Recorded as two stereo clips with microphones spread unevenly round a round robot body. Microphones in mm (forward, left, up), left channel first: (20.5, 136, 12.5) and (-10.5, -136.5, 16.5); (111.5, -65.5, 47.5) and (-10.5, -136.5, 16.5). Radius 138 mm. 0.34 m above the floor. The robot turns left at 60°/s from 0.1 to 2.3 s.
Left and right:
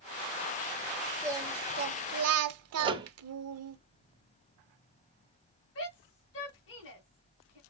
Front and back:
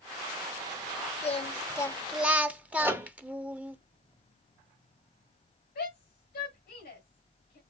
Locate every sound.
1.2 s singing: 15° right, 0.9 m; by 3.8 s 80° right, 0.9 m
2.8 s a microwave: 145° right, 0.9 m
5.8 s a shout: 45° left, 2.5 m